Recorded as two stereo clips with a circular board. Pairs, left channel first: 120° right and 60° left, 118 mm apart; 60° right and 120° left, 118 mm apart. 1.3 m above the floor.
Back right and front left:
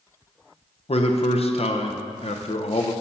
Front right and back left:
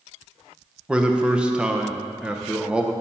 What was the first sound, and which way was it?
A man speaking, 155° right.